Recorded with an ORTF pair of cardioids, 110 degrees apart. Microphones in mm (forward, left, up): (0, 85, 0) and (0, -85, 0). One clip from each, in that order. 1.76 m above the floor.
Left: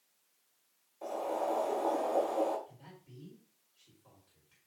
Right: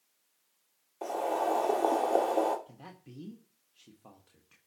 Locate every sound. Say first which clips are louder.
1.0 s boiling: right 4 dB; 65° right, 2 m
2.7 s a man speaking: right 5 dB; 65° right, 1.4 m